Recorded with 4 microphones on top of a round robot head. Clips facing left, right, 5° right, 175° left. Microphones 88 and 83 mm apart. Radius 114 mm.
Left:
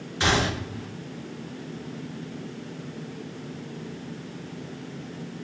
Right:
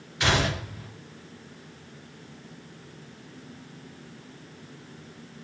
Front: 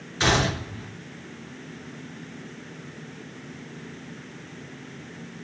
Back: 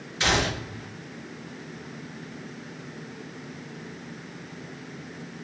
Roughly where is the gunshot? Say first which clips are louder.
Left 1 dB, front 2 dB; ahead left.